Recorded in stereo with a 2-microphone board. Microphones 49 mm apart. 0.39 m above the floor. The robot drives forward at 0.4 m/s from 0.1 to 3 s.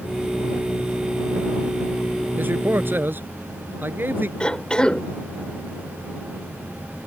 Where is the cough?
20° left (ahead or behind).